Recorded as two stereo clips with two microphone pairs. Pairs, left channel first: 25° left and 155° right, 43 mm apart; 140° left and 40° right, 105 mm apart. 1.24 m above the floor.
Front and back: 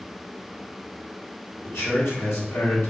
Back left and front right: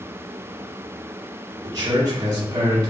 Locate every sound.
1.6 s a man speaking: 10° left, 2 m